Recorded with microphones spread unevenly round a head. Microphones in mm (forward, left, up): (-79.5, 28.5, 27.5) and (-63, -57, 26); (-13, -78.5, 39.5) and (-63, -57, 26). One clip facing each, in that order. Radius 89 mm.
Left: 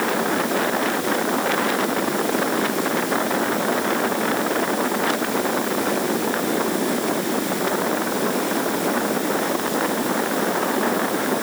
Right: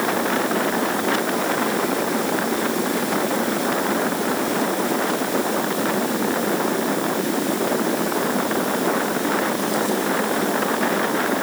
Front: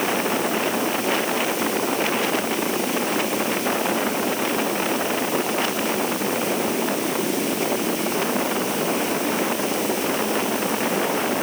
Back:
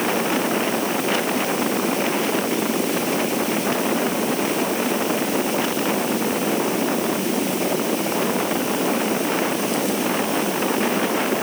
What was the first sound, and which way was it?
Only background noise.